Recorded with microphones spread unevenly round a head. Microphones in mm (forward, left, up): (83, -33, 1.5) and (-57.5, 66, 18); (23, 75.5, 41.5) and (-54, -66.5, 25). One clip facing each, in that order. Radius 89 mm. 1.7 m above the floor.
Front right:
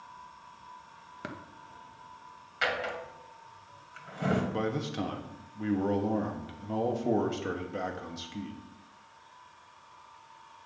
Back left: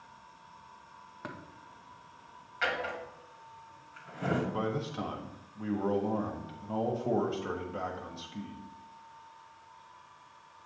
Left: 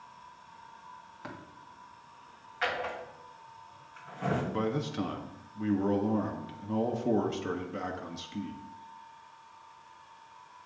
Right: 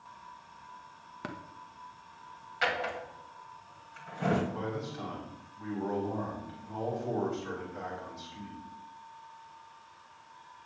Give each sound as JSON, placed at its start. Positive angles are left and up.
{"t": 1.2, "sound": "tapping", "azimuth_deg": -90, "distance_m": 1.2}
{"t": 2.6, "sound": "a drawer", "azimuth_deg": -70, "distance_m": 2.0}
{"t": 4.5, "sound": "a man speaking", "azimuth_deg": 35, "distance_m": 1.1}